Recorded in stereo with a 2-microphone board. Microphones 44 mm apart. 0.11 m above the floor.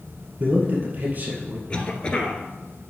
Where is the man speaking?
40° right (ahead or behind), 2 m.